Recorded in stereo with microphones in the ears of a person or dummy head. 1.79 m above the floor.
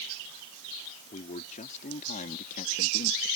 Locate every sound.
1.1 s a man speaking: 40° left (ahead or behind); by 3.3 s 50° left (ahead or behind)